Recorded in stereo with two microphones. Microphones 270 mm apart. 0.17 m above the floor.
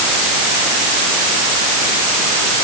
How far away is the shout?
No shout in this recording.